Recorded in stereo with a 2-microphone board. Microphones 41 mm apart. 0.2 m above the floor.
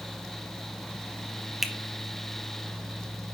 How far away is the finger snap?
About 0.8 m.